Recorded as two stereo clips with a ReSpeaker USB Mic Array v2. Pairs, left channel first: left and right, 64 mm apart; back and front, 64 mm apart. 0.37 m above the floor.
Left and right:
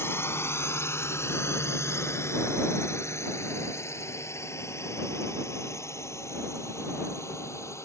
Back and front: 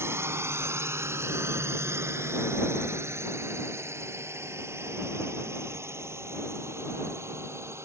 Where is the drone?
45° left; by 7.8 s 50° left.